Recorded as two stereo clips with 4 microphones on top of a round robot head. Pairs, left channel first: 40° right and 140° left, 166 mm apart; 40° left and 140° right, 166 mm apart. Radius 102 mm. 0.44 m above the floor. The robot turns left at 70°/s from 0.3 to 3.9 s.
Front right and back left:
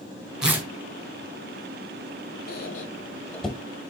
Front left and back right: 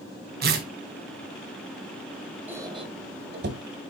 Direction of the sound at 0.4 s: 135° right.